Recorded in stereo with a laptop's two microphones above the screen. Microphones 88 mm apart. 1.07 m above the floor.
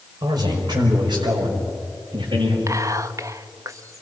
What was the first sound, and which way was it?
A man speaking, 50° right (ahead or behind).